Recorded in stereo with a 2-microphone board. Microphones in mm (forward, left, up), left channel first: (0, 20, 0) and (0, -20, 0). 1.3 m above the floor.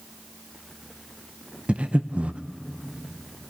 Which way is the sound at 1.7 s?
35° right (ahead or behind).